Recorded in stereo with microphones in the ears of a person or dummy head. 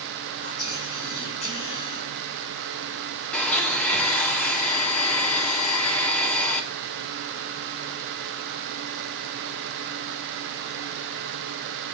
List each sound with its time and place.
0.4 s whispering: 35° left (ahead or behind), 3.5 m
3.3 s a blender: 10° left (ahead or behind), 1.5 m